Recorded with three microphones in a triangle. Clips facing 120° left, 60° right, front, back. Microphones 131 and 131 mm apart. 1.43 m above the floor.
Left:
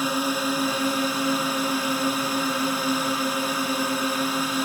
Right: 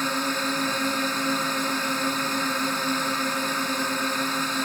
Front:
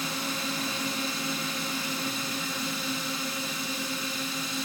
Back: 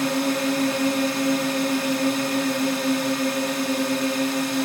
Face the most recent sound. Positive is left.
turn(degrees=-160)